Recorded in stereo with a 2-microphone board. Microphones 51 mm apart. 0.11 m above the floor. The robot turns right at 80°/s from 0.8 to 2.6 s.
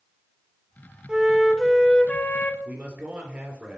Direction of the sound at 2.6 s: 20° right (ahead or behind).